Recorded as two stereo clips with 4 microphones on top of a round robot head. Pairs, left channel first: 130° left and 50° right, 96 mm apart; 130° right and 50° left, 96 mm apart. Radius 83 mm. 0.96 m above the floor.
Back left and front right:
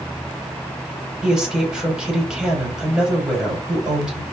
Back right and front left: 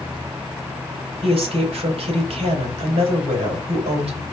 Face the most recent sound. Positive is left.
turn(degrees=30)